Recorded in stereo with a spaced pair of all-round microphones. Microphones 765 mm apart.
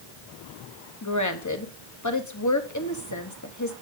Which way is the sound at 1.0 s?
25° left (ahead or behind).